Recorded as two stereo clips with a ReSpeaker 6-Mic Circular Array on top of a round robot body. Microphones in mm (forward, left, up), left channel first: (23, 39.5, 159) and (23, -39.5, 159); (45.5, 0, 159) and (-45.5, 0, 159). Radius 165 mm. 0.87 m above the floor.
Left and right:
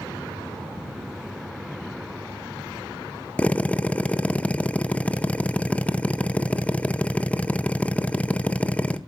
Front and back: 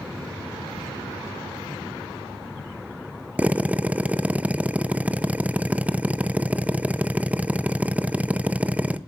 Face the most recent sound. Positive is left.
turn(degrees=135)